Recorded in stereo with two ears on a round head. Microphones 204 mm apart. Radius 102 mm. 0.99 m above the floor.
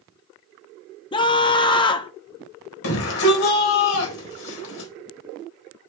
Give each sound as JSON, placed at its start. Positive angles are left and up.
{"t": 1.1, "sound": "a scream", "side_deg": 20, "distance_m": 0.6}
{"t": 2.8, "sound": "a shout", "side_deg": 65, "distance_m": 4.5}